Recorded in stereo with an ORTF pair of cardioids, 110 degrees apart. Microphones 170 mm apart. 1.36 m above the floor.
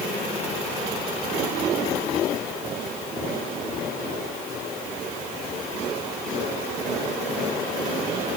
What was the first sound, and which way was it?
Only background noise.